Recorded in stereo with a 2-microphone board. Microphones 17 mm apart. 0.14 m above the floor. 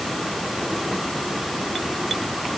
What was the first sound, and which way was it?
Only background noise.